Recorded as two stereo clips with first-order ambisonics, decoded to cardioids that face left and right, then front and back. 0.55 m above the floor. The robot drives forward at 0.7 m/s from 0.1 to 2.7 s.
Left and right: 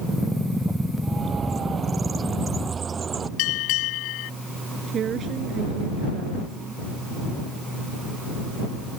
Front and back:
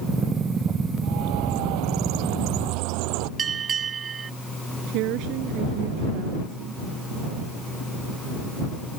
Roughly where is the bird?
Behind.